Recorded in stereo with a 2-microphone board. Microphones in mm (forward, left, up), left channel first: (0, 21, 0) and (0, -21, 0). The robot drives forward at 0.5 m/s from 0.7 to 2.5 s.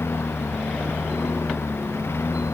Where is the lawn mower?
90° left.